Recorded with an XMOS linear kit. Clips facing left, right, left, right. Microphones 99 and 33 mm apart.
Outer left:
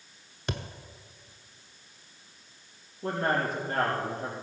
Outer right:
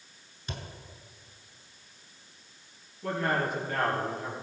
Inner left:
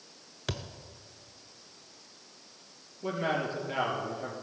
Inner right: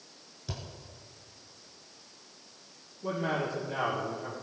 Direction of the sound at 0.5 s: 85° left.